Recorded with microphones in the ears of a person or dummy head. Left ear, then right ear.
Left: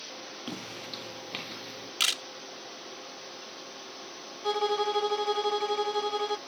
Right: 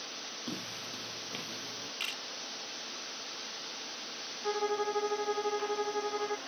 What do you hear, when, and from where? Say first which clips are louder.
0.5 s footsteps: left 3 dB; 30° left (ahead or behind); by 1.9 s 25° left (ahead or behind)
2.0 s a camera shutter: left 11 dB; 60° left (ahead or behind)
4.4 s a violin: left 5 dB; 70° left (ahead or behind)